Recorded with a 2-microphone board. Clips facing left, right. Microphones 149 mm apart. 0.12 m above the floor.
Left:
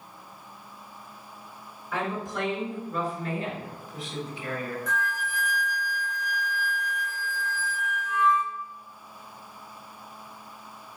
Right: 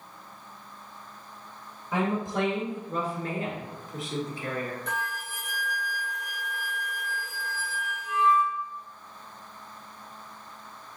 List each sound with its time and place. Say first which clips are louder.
1.9 s a woman speaking: right 3 dB; 25° right (ahead or behind), 1.7 m; by 4.8 s 50° right (ahead or behind), 2.5 m
4.9 s a flute: left 3 dB; 70° right (ahead or behind), 1.2 m